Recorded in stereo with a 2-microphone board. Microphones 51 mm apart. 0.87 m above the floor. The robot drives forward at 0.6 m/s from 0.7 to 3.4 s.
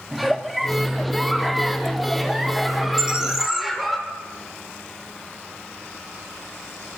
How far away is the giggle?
About 1.7 m.